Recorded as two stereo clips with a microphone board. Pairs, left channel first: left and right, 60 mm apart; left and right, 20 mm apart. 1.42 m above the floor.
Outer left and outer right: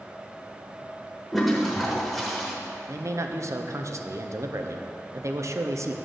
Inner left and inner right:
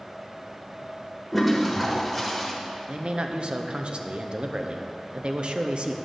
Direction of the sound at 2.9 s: 55° right (ahead or behind).